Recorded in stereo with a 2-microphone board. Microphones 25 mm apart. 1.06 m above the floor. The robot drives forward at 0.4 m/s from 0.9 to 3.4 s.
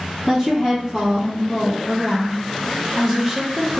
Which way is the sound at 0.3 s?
5° right (ahead or behind).